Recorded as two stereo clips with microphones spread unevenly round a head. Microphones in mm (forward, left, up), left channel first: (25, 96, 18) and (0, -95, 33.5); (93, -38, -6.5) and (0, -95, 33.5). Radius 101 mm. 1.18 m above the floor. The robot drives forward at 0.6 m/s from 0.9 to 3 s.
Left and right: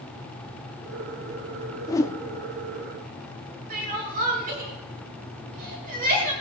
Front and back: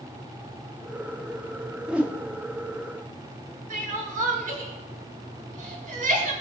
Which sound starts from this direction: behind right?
Crying, at 3.7 s.